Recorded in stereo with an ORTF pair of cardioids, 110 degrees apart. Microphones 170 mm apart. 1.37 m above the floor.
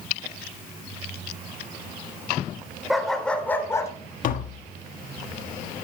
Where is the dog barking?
Straight ahead, 2.5 m; by 3.9 s 20° left, 2 m.